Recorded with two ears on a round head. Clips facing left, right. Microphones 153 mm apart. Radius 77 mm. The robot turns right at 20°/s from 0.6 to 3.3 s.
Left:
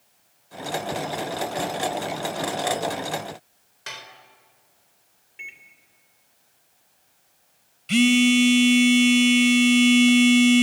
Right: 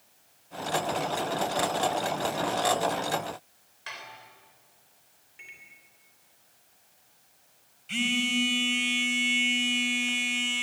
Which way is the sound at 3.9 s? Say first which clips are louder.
Left 2 dB; 50° left (ahead or behind).